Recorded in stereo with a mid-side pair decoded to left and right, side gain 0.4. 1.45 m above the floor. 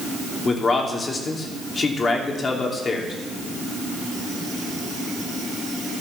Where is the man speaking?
45° left, 3 m.